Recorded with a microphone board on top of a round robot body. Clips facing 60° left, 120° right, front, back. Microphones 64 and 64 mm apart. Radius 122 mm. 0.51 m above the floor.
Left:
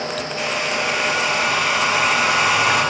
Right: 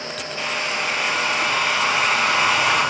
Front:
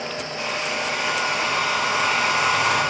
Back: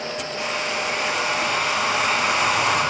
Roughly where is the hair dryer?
Behind left.